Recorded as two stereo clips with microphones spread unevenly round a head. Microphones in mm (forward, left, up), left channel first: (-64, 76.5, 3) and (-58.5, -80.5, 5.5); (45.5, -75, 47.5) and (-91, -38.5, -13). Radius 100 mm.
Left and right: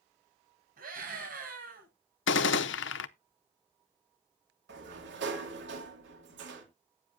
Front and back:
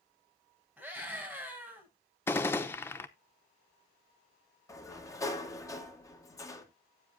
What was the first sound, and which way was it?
A scream, 110° right.